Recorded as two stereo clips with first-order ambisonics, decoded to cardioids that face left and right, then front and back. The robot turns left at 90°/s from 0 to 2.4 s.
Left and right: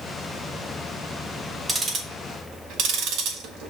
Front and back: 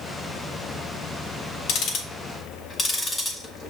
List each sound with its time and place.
1.7 s ticking: 10° right, 0.9 m; by 3.7 s 70° right, 0.9 m